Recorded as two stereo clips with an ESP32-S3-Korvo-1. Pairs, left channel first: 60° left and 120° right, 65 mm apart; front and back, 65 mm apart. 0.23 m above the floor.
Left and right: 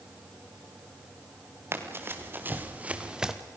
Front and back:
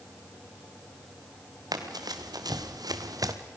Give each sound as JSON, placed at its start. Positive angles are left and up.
{"t": 1.7, "sound": "running footsteps", "azimuth_deg": -170, "distance_m": 3.0}